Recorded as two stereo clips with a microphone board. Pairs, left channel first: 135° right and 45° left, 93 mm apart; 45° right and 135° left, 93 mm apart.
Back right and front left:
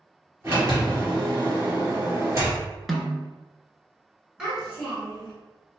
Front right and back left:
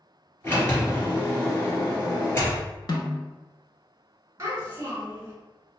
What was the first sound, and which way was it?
A sliding door, 5° left.